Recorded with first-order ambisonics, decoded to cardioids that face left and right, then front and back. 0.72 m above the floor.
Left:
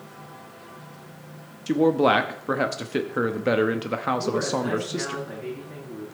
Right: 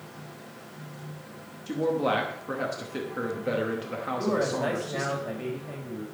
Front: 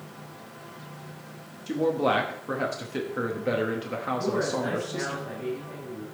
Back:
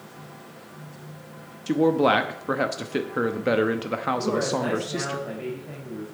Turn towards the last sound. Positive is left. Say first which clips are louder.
# left 1 dB, back 2 dB
turn(degrees=-120)